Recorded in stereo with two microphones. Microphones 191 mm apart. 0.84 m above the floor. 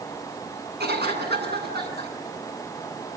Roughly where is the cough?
Right.